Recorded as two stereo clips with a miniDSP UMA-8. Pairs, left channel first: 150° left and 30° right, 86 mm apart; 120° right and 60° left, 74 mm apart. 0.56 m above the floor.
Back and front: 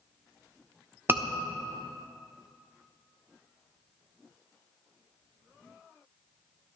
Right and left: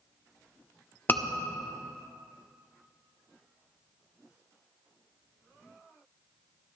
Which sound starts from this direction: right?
A scream, at 1.1 s.